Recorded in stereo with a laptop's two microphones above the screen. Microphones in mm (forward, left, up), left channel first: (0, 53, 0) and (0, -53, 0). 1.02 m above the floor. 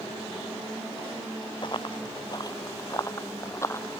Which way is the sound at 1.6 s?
45° left (ahead or behind).